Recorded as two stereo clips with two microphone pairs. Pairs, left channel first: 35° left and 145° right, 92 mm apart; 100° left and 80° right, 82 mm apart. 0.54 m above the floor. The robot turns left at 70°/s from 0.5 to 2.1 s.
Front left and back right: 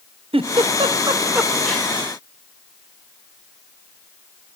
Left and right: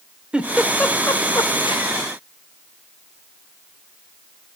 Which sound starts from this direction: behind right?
A giggle, at 0.3 s.